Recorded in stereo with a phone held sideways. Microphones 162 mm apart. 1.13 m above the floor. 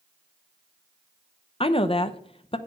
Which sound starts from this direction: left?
A woman speaking, at 1.6 s.